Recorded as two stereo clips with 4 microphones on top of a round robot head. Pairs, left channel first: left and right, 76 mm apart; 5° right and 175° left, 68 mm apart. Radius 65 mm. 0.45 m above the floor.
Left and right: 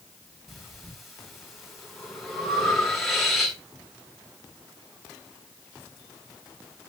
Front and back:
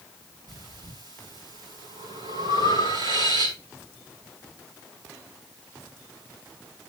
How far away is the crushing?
I don't hear crushing.